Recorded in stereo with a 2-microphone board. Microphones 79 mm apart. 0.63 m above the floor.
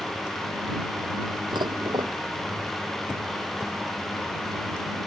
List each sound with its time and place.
1.5 s dishes clattering: 65° right (ahead or behind)